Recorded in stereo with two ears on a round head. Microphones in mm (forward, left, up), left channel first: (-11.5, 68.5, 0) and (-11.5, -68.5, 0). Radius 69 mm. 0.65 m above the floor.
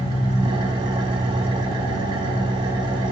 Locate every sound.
0.0 s an engine running: 35° right (ahead or behind), 1.8 m